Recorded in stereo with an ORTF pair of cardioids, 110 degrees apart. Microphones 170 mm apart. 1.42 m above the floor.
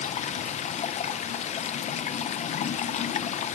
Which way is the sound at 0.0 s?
45° left.